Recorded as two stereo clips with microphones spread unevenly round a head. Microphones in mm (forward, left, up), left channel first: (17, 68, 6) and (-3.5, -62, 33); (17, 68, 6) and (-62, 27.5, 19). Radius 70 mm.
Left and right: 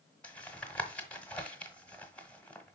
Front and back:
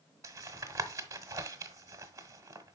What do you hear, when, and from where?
0.2 s tapping: 170° left, 1.0 m